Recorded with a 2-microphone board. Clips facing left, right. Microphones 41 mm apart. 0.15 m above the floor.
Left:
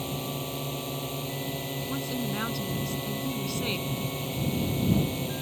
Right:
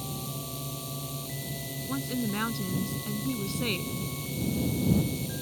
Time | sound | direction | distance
0.0 | a drone | 40° left (ahead or behind) | ?
1.9 | a woman speaking | 5° right (ahead or behind) | ?